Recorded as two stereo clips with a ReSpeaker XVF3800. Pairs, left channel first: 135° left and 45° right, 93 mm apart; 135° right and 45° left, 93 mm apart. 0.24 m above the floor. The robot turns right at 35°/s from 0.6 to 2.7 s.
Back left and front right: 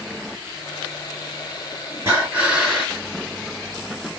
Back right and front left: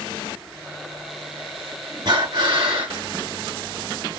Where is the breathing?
20° left, 3 m; by 3.0 s 45° left, 3 m.